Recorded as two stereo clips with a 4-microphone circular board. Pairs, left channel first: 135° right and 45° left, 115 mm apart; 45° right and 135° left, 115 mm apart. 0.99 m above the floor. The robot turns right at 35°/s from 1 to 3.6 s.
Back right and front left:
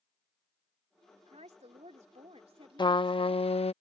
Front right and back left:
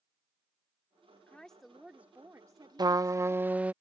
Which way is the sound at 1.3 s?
35° left.